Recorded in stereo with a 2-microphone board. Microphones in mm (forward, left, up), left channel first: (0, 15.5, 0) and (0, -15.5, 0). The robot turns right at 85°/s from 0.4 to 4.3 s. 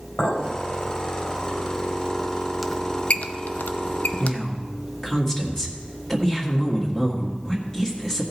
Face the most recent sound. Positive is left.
turn(degrees=20)  # may be behind; listen again after turning